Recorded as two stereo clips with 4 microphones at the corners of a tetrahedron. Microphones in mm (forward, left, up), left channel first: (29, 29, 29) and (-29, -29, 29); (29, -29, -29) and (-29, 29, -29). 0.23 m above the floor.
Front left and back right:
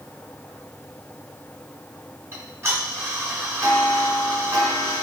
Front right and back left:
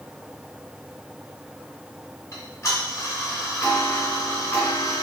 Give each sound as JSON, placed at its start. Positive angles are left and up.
{"t": 2.3, "sound": "ticking", "azimuth_deg": -85, "distance_m": 2.0}